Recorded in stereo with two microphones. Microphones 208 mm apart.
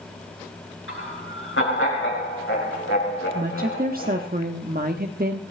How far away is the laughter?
About 7.5 m.